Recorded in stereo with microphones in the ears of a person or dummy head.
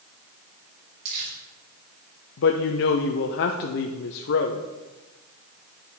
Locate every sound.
1.1 s crumpling: 55° right (ahead or behind), 4.5 m
2.4 s a woman speaking: 55° left (ahead or behind), 0.9 m